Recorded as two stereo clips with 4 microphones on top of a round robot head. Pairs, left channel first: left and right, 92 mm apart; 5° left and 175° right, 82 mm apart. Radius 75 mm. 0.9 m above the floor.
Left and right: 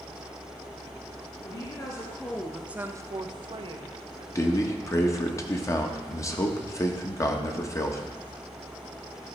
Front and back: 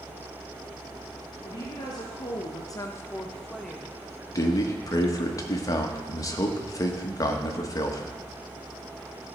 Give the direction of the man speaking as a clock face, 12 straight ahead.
11 o'clock.